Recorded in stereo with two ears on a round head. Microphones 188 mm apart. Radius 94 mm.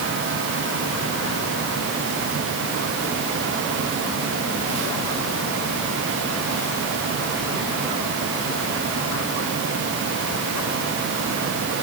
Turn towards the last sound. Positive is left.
No sound to turn to.